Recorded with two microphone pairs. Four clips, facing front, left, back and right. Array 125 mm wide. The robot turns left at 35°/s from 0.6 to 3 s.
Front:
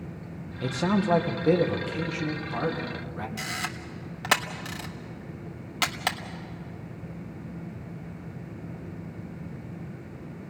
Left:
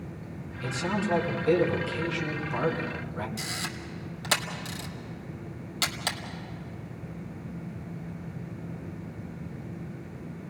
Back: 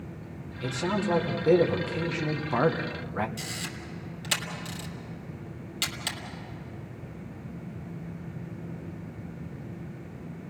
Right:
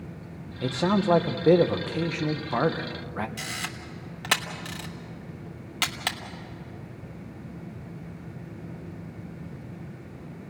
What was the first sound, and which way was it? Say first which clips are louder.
A man speaking: right 6 dB, front 3 dB; 60° right.